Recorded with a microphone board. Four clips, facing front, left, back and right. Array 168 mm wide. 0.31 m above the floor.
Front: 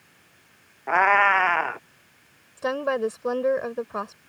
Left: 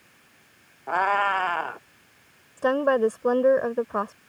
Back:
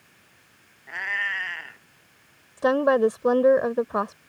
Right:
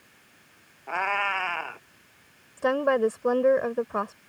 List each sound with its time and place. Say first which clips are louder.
0.9 s a cat meowing: left 5 dB, front 13 dB; 25° left
2.6 s a woman speaking: left 2 dB, back 6 dB; 165° left